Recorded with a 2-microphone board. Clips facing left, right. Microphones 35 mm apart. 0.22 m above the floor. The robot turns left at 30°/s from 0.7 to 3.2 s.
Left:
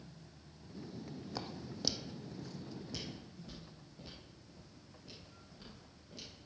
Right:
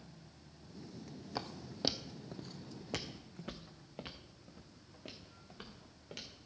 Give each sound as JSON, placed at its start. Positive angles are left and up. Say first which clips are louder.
{"t": 1.4, "sound": "footsteps", "louder": "right 4 dB", "side_deg": -15, "distance_m": 0.7}